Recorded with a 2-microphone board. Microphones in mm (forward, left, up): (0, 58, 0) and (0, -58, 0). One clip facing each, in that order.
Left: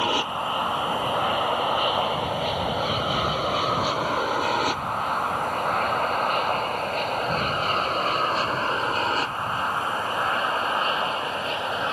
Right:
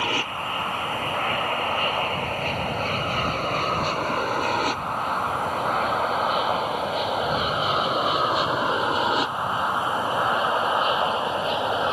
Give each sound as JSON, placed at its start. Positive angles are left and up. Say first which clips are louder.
{"t": 0.0, "sound": "an aircraft", "louder": "left 2 dB", "side_deg": 20}